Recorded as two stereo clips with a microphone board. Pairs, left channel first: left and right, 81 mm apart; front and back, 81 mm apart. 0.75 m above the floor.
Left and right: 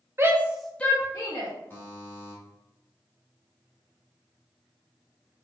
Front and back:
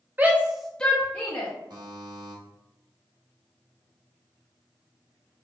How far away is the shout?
About 0.7 m.